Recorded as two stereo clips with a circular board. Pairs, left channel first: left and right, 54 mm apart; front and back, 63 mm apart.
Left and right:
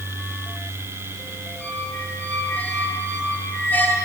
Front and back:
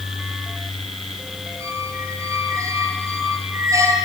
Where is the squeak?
145° left, 8 m.